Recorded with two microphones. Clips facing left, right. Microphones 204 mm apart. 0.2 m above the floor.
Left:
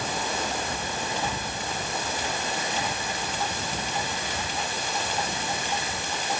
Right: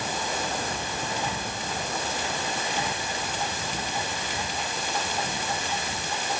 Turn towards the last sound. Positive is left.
No sound to turn to.